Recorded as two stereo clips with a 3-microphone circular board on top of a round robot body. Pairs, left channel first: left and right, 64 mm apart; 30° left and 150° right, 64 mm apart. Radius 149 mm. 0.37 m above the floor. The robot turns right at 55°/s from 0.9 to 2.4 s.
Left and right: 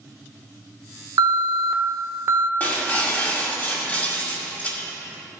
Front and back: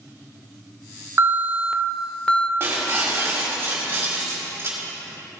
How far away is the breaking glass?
About 1.9 m.